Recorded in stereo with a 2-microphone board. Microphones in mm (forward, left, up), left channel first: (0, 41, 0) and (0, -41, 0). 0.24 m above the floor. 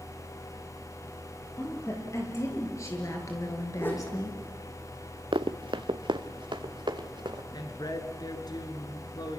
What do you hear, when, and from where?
1.6 s a woman speaking: 35° left (ahead or behind), 7 m; by 4.4 s 45° left (ahead or behind), 3.5 m
3.8 s a whoosh: 25° left (ahead or behind), 5 m
5.3 s running footsteps: 80° right, 1.0 m; by 7.4 s 65° right (ahead or behind), 3 m
7.5 s a woman speaking: 55° left (ahead or behind), 3 m